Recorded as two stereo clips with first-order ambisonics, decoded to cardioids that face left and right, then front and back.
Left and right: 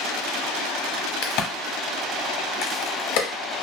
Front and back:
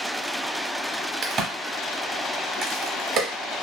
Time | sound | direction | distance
1.2 | a crack | 120° left | 0.9 m